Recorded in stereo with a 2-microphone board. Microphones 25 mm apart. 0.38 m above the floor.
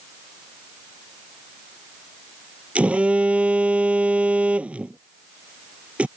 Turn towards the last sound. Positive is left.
turn(degrees=-70)  # may be behind; listen again after turning